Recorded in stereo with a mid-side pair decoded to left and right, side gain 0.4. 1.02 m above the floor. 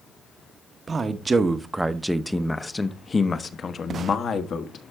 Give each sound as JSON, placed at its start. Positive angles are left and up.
{"t": 0.9, "sound": "a man speaking", "azimuth_deg": -40, "distance_m": 1.0}